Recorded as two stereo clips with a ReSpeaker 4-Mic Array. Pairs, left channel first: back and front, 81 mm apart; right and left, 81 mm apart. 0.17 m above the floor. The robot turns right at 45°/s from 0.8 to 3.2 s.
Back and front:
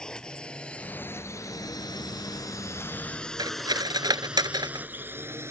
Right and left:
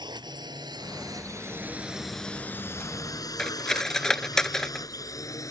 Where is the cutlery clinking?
5° right.